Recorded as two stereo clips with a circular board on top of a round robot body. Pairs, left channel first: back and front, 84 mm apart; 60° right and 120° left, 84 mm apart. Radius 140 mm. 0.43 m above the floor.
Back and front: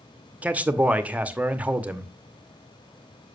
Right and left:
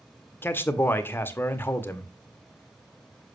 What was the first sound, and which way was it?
A man speaking, 50° right.